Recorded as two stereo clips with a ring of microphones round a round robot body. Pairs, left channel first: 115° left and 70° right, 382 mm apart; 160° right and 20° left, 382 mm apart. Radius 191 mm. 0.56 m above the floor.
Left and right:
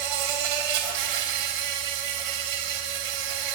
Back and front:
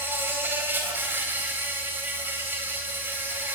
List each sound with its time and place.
0.0 s an insect: 60° right, 3.5 m